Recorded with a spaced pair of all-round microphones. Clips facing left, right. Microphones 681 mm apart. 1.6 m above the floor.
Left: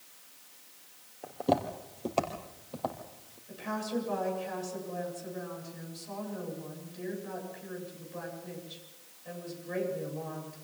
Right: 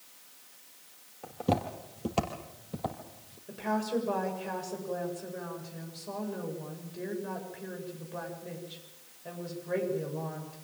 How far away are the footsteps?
About 3 m.